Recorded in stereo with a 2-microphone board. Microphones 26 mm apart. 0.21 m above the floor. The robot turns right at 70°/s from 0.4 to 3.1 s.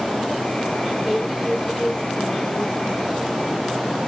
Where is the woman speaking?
40° right, 1.2 m; by 3.4 s 105° left, 1.2 m.